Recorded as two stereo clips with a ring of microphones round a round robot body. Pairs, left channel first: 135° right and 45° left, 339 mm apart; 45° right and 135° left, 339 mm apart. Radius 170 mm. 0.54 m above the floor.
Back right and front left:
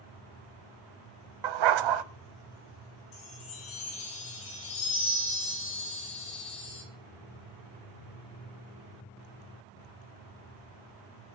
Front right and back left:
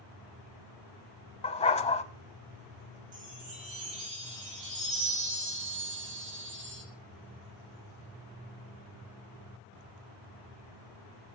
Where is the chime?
165° right, 6.5 m.